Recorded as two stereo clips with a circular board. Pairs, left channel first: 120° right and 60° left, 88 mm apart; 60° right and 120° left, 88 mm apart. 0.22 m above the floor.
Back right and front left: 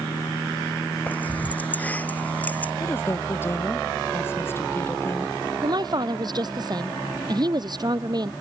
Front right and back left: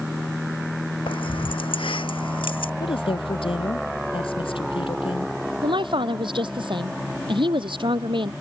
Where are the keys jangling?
45° right.